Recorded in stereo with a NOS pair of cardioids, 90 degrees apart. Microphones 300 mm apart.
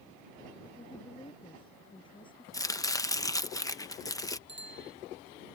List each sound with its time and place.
0.8 s a woman speaking: 15° left
2.5 s chopping: 10° left
4.5 s a bicycle bell: 40° right